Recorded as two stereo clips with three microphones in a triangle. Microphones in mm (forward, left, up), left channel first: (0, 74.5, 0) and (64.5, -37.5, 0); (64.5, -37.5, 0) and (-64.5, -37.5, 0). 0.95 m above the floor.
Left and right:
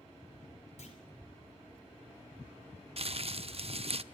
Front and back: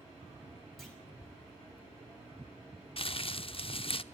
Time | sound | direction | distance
0.8 | a clunk | 90° left | 5 m
3.0 | crumpling | 35° right | 0.7 m